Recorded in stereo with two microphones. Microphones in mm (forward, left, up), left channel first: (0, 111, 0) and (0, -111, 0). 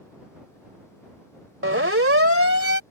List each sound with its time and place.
1.6 s a siren: 75° right (ahead or behind); by 2.8 s 80° right